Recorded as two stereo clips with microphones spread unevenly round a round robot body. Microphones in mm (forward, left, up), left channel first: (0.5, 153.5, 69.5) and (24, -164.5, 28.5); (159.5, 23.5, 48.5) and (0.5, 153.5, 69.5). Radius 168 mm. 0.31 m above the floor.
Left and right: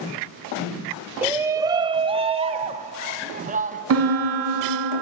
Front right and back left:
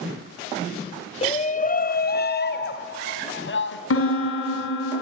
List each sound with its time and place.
1.2 s a shout: 15° right, 1.2 m; by 3.8 s 25° right, 2.5 m
3.9 s a piano: 45° right, 2.5 m